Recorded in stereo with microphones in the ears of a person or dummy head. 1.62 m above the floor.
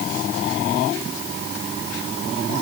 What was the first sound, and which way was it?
Only background noise.